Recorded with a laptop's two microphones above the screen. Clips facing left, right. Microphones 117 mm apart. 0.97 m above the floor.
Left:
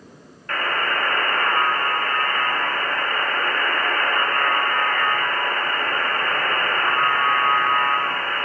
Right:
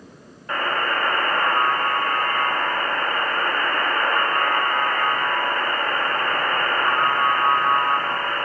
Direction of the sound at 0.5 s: 15° right (ahead or behind).